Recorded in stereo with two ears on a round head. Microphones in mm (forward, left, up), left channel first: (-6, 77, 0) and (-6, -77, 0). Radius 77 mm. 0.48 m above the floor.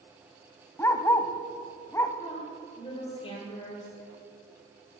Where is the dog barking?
15° left (ahead or behind), 0.6 m.